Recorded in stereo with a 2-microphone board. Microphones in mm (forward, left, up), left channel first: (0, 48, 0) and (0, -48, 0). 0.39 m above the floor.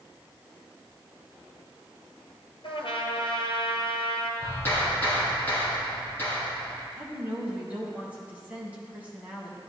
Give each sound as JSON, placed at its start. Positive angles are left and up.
{"t": 2.6, "sound": "a trumpet", "side_deg": 70, "distance_m": 1.9}
{"t": 4.4, "sound": "a clap", "side_deg": 25, "distance_m": 5.0}
{"t": 7.0, "sound": "a woman speaking", "side_deg": -15, "distance_m": 3.5}